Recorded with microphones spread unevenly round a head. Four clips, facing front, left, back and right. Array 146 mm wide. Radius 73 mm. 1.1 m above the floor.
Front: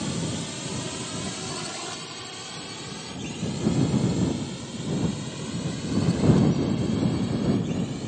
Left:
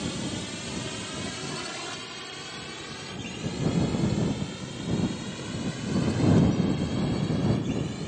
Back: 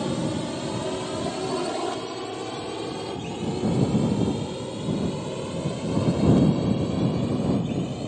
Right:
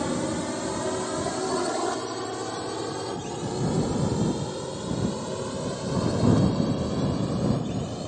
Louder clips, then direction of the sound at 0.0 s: Right 6 dB, back 4 dB; 135° right.